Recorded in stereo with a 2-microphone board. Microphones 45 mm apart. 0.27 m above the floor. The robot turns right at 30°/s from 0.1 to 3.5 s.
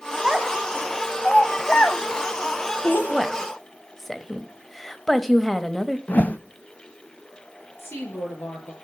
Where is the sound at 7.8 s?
70° left (ahead or behind), 6 m.